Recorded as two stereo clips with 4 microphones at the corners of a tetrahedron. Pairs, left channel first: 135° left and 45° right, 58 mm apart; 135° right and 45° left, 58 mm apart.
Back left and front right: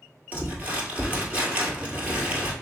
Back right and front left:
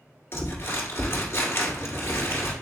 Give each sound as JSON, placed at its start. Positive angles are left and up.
{"t": 0.3, "sound": "crumpling", "azimuth_deg": -105, "distance_m": 1.6}